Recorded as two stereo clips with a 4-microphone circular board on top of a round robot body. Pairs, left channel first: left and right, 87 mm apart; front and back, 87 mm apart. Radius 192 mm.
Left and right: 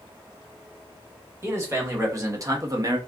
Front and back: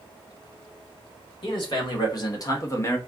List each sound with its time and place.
1.4 s a man speaking: 30° right, 1.9 m; by 3.0 s 55° right, 1.0 m